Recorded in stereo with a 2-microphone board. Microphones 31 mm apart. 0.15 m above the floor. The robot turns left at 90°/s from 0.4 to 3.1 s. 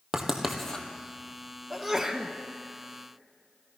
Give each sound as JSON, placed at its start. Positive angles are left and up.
{"t": 0.1, "sound": "writing", "side_deg": -15, "distance_m": 1.7}
{"t": 1.7, "sound": "a sneeze", "side_deg": 5, "distance_m": 1.1}